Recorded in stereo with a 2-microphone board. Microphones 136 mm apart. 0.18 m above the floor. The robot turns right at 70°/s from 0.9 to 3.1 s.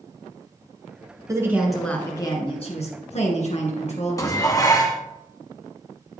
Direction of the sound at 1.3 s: 30° right.